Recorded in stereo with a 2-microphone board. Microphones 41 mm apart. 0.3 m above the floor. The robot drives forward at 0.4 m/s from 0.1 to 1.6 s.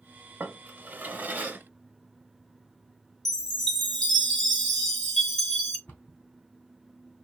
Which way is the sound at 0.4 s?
55° right (ahead or behind).